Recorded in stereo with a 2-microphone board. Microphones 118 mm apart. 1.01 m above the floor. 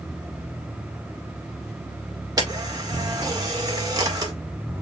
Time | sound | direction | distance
2.4 | a camera shutter | 30° right (ahead or behind) | 1.5 m